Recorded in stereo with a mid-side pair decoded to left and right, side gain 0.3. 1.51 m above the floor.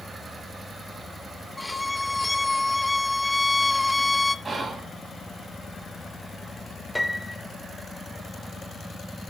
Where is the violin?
20° left, 0.5 m.